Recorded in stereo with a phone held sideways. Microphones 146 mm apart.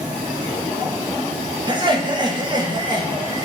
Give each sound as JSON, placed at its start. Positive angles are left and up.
{"t": 1.7, "sound": "laughter", "side_deg": -30, "distance_m": 0.9}